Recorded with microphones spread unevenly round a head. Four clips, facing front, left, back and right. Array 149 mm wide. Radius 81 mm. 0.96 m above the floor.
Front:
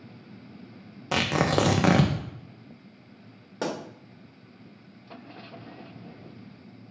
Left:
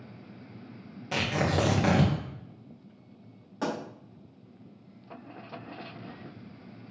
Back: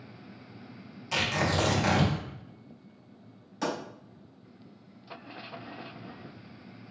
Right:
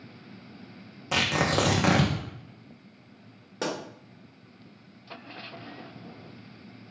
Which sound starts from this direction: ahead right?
A pop, at 3.6 s.